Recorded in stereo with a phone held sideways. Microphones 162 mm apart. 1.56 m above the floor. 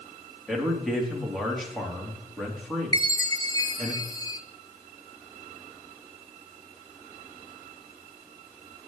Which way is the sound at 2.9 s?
25° left (ahead or behind).